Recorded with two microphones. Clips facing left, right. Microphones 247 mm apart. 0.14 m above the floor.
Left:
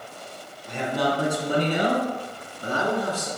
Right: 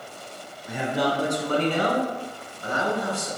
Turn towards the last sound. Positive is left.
turn(degrees=45)  # may be behind; listen again after turning